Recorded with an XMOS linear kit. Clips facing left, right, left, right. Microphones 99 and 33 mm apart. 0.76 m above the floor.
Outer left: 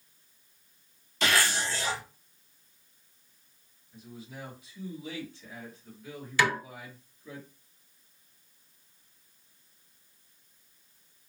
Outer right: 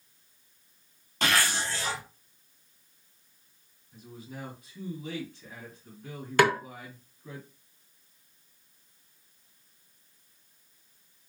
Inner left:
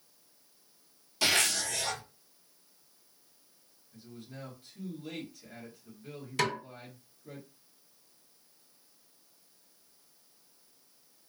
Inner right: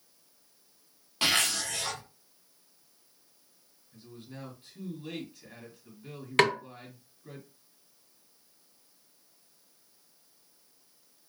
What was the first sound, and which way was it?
A zipper, 50° right (ahead or behind).